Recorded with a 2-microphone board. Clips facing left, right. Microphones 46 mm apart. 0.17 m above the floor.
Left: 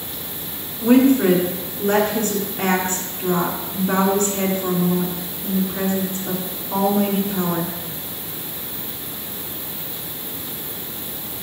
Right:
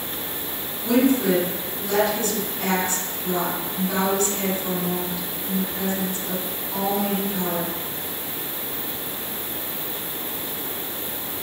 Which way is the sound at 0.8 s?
45° left (ahead or behind).